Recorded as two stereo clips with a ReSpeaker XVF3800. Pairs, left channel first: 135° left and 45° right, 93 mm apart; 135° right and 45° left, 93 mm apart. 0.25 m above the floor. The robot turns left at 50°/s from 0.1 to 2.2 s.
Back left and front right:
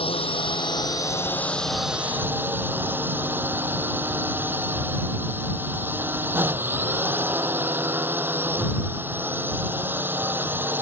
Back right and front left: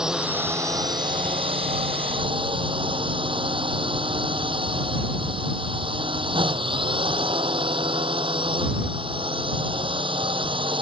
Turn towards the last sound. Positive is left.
turn(degrees=25)